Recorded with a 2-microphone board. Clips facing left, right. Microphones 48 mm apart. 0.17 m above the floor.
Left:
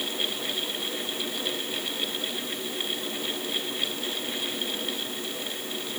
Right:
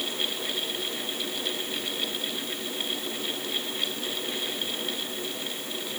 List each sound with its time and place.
Only background noise.